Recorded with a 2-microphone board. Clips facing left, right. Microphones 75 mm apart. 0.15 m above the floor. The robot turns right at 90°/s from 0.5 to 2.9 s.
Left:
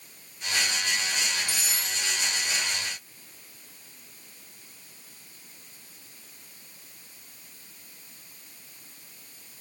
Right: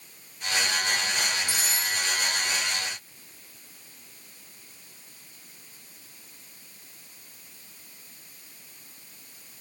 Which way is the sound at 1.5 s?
10° right.